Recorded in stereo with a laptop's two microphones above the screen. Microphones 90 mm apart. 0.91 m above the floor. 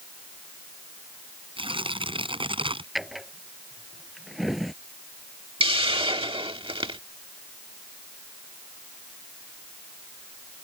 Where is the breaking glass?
No breaking glass in this recording.